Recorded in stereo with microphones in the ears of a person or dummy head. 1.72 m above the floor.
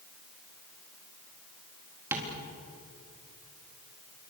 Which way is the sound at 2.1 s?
10° right (ahead or behind).